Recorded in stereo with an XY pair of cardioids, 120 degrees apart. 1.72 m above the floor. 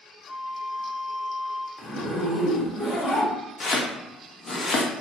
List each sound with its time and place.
0.3 s a flute: 5° left, 0.7 m
1.8 s a zipper: 40° left, 1.2 m
3.6 s chopping: 30° left, 0.6 m